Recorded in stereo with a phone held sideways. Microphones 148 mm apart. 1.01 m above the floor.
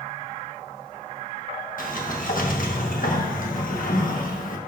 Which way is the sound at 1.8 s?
70° left (ahead or behind).